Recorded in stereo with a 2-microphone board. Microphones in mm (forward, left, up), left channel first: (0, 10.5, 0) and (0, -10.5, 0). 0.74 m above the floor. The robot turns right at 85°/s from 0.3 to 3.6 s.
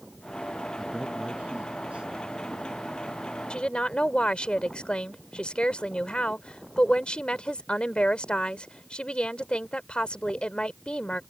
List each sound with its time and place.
0.8 s a man speaking: 10° right (ahead or behind); by 2.3 s 35° right (ahead or behind)
3.5 s a woman speaking: 55° left (ahead or behind); by 11.2 s 60° left (ahead or behind)